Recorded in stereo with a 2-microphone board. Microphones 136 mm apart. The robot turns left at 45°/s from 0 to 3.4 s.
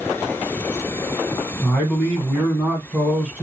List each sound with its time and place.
1.6 s a man speaking: 15° left (ahead or behind), 1.3 m; by 3.4 s 15° right (ahead or behind), 1.3 m